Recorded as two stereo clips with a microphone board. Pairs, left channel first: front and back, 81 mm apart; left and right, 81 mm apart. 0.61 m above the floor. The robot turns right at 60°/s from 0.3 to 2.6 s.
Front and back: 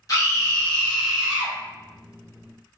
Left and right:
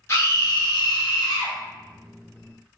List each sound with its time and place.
0.1 s a scream: 40° left, 1.5 m; by 1.6 s 115° left, 1.5 m